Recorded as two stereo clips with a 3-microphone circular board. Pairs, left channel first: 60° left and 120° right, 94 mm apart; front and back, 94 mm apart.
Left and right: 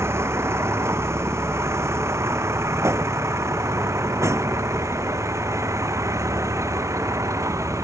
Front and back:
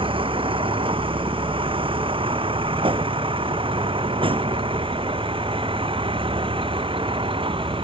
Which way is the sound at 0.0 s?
Straight behind.